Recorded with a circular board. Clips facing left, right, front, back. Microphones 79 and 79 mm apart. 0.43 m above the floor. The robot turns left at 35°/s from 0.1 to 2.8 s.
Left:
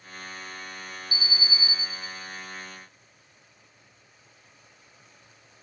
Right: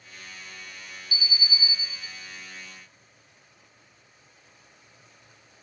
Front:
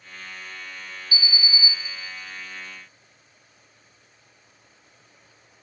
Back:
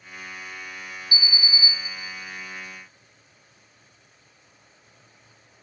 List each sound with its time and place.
1.1 s an alarm: 30° right, 1.8 m; by 1.7 s 50° right, 1.8 m